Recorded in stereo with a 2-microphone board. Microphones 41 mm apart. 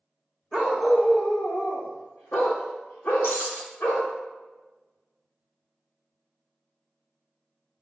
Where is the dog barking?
Centre (ahead or behind), 1.9 m; by 4.1 s 85° left, 2.5 m.